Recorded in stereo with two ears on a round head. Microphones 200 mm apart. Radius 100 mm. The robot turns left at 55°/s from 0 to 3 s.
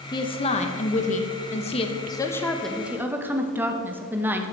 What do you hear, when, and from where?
0.1 s a woman speaking: 145° left, 1.0 m; by 4.5 s 15° right, 1.0 m